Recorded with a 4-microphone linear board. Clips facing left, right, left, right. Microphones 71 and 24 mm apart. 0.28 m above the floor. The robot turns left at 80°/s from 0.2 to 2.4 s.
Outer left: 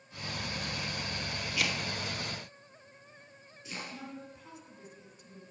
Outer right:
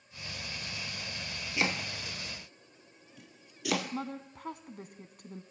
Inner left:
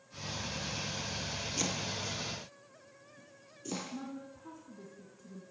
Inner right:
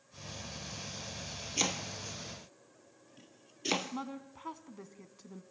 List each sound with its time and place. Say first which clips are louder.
1.6 s chopping: outer right 2 dB, inner right 3 dB; 25° right (ahead or behind), 1.7 m; by 3.9 s 85° right, 1.7 m
3.9 s a woman speaking: outer right 6 dB, inner right 2 dB; 55° right (ahead or behind), 2.5 m